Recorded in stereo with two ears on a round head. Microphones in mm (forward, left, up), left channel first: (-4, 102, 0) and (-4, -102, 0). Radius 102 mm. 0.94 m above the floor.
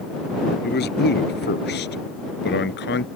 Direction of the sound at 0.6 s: 50° left (ahead or behind).